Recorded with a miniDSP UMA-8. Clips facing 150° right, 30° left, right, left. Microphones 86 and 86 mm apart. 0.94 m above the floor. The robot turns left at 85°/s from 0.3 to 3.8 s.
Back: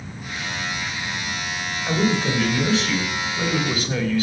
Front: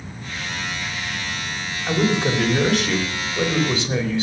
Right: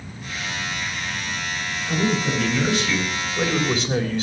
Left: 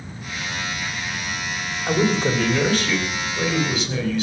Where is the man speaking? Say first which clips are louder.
Front 1 dB, left 3 dB; 130° left, 3.5 m; by 4.2 s 35° right, 3.5 m.